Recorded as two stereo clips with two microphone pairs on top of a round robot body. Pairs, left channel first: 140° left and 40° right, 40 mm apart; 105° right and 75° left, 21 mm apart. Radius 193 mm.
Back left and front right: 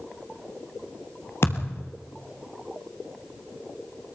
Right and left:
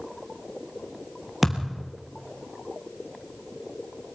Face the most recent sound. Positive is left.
turn(degrees=155)